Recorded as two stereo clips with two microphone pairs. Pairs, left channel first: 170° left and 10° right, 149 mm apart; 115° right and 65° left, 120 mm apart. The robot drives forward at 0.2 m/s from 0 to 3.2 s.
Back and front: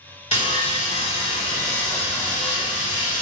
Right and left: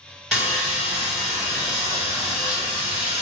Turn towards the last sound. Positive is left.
turn(degrees=160)